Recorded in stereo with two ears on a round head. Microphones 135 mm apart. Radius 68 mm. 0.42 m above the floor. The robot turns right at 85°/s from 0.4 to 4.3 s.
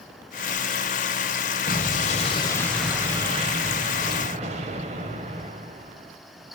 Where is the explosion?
80° left, 1.5 m; by 6.1 s 55° right, 1.5 m.